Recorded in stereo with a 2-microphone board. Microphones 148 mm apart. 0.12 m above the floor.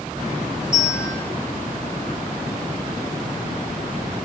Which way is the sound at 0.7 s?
75° right (ahead or behind).